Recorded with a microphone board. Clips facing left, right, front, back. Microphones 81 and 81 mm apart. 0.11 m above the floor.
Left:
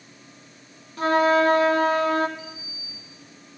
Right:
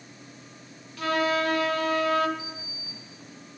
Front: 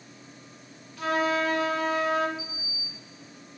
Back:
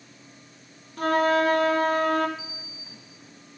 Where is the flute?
145° left, 1.5 m.